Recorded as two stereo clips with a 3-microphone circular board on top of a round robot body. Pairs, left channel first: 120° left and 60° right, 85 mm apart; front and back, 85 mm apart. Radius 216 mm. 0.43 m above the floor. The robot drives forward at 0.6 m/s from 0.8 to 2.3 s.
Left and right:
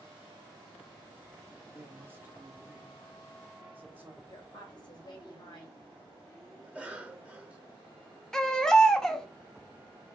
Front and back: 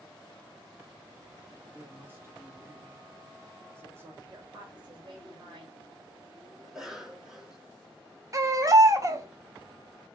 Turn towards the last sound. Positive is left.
turn(degrees=-160)